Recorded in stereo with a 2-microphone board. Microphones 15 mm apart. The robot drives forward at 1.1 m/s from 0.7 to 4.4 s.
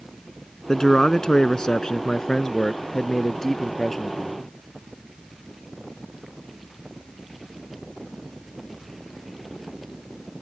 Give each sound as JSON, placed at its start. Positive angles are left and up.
{"t": 0.7, "sound": "a man speaking", "side_deg": 50}